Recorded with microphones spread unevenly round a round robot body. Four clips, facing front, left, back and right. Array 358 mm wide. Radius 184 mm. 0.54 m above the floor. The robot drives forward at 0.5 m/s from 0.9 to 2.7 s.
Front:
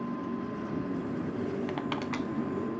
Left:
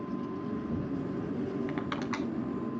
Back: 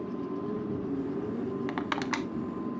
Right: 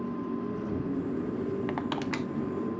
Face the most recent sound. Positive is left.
turn(degrees=-140)